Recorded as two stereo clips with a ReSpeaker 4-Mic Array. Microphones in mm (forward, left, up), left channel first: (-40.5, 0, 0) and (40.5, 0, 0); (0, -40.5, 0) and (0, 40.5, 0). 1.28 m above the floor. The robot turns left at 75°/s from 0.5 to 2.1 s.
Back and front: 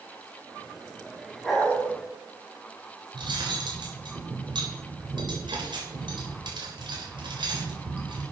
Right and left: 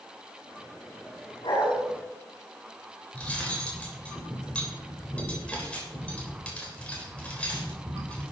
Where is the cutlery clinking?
15° right, 3.5 m.